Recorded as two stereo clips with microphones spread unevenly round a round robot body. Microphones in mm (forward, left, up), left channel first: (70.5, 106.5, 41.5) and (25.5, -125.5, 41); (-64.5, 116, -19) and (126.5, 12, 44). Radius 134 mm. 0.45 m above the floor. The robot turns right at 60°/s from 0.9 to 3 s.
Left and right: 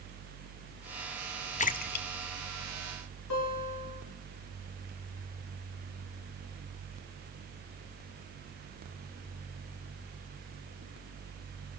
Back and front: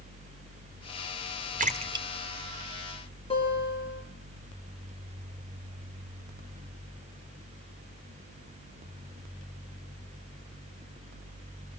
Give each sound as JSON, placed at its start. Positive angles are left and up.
{"t": 1.6, "sound": "a splash", "azimuth_deg": 30, "distance_m": 1.5}
{"t": 3.3, "sound": "a guitar", "azimuth_deg": 90, "distance_m": 9.5}